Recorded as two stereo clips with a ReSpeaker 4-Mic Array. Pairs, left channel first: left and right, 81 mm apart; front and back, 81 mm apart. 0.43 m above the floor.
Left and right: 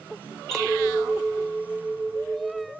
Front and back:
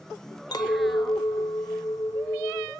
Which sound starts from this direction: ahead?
A clink, at 0.5 s.